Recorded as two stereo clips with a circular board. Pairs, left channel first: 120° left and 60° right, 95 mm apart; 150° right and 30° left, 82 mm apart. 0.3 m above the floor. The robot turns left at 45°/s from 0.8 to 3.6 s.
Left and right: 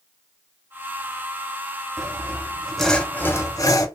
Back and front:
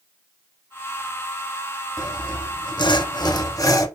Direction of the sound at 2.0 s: 115° right.